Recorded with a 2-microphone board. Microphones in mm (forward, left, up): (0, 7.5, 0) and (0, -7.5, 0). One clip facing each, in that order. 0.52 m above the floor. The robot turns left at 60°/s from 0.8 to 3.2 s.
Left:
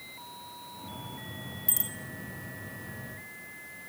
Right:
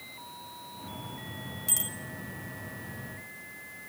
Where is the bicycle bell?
20° right (ahead or behind), 3 m; by 1.9 s centre (ahead or behind), 3 m.